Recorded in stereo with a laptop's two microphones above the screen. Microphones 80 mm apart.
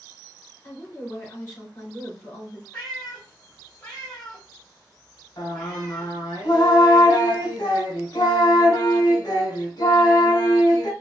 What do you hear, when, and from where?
0.6 s a woman speaking: 30° left (ahead or behind), 2.5 m
2.7 s a cat meowing: 15° left (ahead or behind), 1.4 m
5.4 s singing: 60° left (ahead or behind), 1.5 m